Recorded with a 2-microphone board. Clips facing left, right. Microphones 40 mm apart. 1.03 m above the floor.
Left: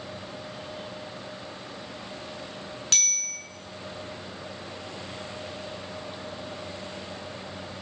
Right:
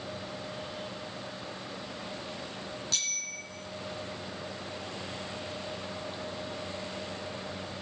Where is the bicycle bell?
65° left (ahead or behind), 8 m.